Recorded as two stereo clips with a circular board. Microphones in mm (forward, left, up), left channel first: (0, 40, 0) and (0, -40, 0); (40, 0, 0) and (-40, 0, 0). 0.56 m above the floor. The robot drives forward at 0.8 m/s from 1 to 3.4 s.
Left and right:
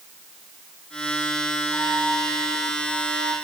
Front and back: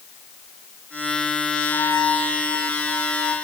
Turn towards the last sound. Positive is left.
turn(degrees=-105)